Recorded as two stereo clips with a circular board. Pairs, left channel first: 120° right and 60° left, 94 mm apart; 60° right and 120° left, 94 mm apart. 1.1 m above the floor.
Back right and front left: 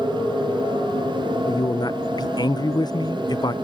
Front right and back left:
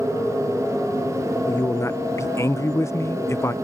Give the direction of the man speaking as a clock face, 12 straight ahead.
4 o'clock.